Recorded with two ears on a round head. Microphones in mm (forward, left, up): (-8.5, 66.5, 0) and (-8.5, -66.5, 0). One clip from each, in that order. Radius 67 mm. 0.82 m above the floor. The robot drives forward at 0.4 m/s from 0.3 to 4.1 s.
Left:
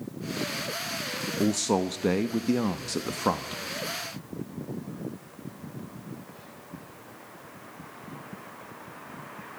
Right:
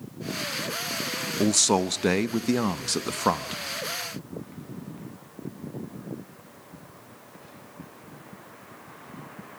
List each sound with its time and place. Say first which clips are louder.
1.4 s a man speaking: right 4 dB; 45° right (ahead or behind), 0.7 m; by 3.6 s 30° right (ahead or behind), 1.0 m